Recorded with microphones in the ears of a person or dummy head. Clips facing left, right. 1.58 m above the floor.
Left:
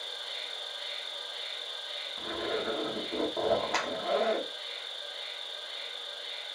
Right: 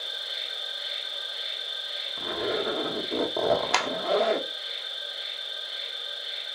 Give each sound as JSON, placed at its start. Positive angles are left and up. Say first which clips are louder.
{"t": 0.0, "sound": "an insect", "louder": "right 2 dB", "side_deg": -25, "distance_m": 1.5}
{"t": 2.2, "sound": "a zipper", "louder": "right 5 dB", "side_deg": -65, "distance_m": 0.7}
{"t": 3.7, "sound": "a clap", "louder": "right 5 dB", "side_deg": -65, "distance_m": 0.7}